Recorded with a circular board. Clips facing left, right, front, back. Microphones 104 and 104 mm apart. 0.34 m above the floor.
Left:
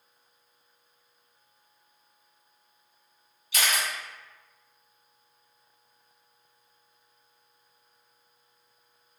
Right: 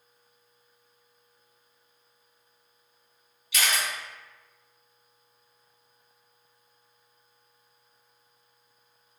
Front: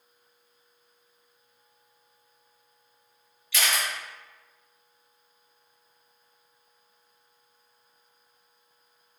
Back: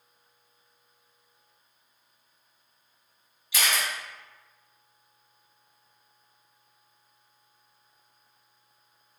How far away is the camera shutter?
About 1.8 m.